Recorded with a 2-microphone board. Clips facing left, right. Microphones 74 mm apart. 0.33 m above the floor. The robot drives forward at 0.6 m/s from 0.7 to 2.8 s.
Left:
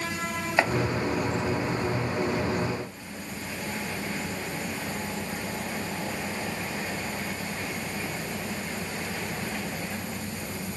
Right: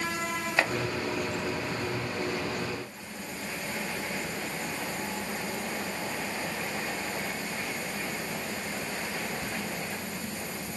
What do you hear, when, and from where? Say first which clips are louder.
0.6 s chopping: left 4 dB; 15° left (ahead or behind), 1.8 m